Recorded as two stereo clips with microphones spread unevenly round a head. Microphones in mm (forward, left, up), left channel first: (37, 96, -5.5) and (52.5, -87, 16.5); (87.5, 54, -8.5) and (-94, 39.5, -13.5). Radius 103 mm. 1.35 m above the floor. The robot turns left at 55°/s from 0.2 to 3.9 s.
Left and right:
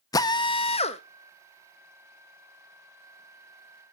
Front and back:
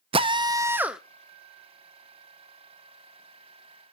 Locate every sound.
0.1 s a drill: 145° left, 0.5 m; by 1.0 s 100° left, 0.5 m